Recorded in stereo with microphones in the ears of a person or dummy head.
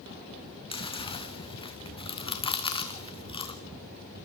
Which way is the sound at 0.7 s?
25° left (ahead or behind).